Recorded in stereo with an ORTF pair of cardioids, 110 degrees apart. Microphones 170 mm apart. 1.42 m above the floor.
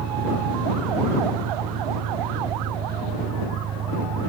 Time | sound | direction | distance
0.0 | an engine running | 55° right | ?